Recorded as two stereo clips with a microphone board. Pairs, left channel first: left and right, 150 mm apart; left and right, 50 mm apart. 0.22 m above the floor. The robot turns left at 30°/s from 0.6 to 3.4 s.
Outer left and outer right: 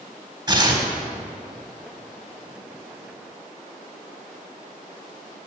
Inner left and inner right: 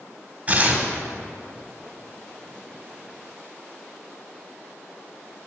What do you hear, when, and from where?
0.5 s tearing paper: 30° right (ahead or behind), 1.6 m